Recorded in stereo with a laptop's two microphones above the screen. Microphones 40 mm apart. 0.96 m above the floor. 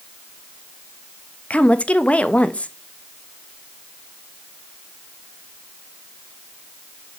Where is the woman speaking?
35° left (ahead or behind), 1.3 m.